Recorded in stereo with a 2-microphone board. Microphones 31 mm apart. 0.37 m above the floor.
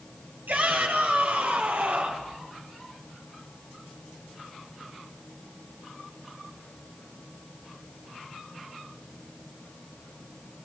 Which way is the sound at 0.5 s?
80° right.